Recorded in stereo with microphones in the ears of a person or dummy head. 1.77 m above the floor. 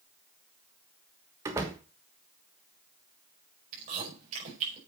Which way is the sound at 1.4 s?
15° right (ahead or behind).